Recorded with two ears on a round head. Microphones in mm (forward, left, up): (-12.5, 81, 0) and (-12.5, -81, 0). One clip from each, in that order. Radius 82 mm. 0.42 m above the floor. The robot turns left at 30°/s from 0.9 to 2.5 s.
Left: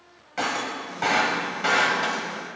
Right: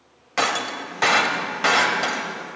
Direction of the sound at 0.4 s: 50° right (ahead or behind).